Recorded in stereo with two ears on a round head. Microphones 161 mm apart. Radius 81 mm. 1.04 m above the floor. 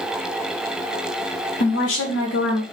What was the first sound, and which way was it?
A woman speaking, 75° left (ahead or behind).